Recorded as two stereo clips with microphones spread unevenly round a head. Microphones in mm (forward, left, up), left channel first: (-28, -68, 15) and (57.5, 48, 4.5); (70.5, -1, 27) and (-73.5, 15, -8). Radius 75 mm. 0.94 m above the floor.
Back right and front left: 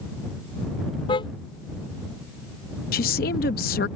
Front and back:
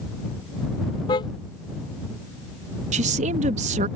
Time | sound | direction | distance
1.1 | a car horn | 70° right | ?
2.9 | a woman speaking | 155° right | ?